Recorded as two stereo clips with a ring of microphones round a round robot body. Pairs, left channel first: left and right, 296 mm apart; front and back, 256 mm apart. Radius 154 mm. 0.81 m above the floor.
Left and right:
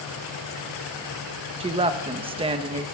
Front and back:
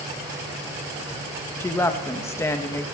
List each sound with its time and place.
1.6 s a woman speaking: 60° right, 0.8 m